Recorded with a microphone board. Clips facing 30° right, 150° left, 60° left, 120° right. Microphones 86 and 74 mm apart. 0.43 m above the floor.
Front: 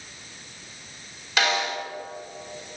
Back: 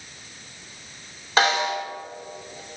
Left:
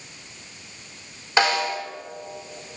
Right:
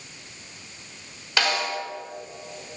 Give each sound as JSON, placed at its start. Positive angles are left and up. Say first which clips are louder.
{"t": 1.4, "sound": "a snare drum", "louder": "back 4 dB, left 4 dB", "azimuth_deg": 115, "distance_m": 1.9}